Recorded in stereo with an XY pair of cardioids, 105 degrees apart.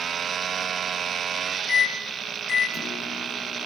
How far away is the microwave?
About 0.8 m.